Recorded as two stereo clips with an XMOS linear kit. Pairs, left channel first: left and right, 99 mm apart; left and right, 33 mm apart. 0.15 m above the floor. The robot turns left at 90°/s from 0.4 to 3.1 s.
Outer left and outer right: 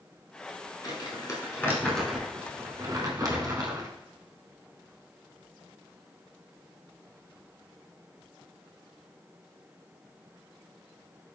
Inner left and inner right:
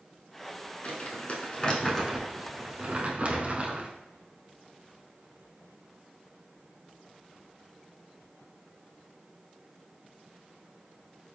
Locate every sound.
0.8 s crumpling: 40° left (ahead or behind), 0.9 m; by 3.9 s 40° right (ahead or behind), 0.9 m